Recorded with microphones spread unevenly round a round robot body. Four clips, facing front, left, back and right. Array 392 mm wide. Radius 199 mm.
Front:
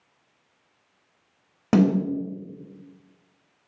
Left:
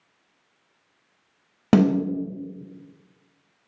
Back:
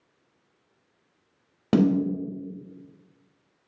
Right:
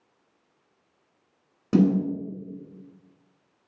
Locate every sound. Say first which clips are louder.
1.7 s a snare drum: left 2 dB, front 1 dB; 75° left, 4 m